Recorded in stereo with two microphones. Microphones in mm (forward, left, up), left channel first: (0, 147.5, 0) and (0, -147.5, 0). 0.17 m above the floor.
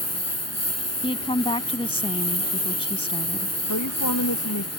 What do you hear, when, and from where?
0.0 s a lawn mower: 55° left (ahead or behind)
1.0 s a woman speaking: 20° left (ahead or behind)
3.7 s a woman speaking: 80° left